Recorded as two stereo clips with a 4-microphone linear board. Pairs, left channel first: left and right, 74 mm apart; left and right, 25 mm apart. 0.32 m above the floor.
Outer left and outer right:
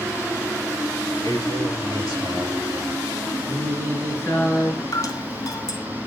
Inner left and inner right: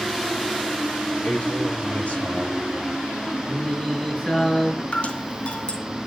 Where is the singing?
35° left (ahead or behind), 5 m.